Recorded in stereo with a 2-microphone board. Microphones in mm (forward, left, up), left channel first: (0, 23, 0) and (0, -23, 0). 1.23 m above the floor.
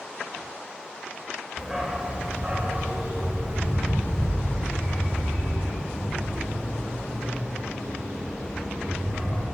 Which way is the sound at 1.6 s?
10° right (ahead or behind).